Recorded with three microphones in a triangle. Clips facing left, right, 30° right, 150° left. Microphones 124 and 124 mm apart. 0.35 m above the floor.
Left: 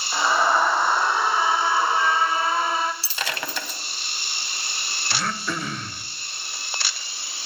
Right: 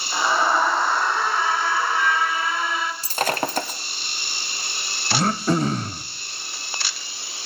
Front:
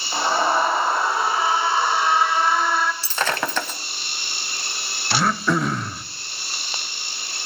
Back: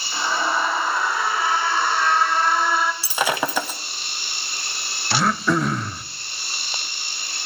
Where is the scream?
Straight ahead, 2.0 m; by 2.9 s 70° left, 1.6 m.